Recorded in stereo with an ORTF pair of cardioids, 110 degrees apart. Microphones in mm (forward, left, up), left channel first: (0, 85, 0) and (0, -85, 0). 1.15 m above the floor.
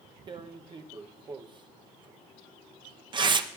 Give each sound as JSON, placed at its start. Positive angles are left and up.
{"t": 0.3, "sound": "tearing paper", "azimuth_deg": -25, "distance_m": 0.8}